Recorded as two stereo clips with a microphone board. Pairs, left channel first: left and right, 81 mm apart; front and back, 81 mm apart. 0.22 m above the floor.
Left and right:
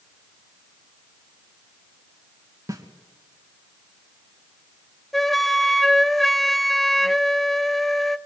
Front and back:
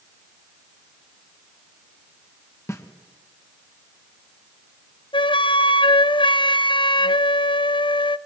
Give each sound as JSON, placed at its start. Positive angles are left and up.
{"t": 2.7, "sound": "a snare drum", "azimuth_deg": -50, "distance_m": 2.5}
{"t": 5.1, "sound": "a flute", "azimuth_deg": 0, "distance_m": 0.6}